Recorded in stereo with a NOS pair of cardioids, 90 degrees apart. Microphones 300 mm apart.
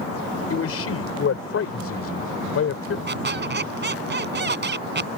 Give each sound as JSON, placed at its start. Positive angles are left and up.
{"t": 0.5, "sound": "a man speaking", "azimuth_deg": 45}
{"t": 3.1, "sound": "a squeak", "azimuth_deg": -35}